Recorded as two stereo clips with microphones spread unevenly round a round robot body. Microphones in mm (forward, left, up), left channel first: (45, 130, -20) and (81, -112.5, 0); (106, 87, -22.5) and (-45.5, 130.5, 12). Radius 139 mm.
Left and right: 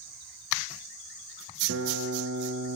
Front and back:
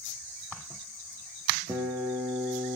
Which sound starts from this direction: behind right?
A guitar, at 1.7 s.